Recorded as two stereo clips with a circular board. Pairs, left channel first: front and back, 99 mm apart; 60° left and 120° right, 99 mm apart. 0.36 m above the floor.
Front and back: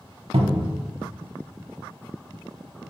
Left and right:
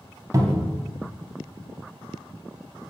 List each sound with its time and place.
0.3 s a cupboard door: 175° right, 0.6 m